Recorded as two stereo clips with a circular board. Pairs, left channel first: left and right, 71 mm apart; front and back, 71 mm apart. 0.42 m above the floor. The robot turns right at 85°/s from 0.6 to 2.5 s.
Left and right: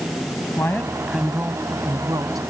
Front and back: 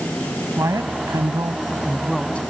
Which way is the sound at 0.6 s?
140° left.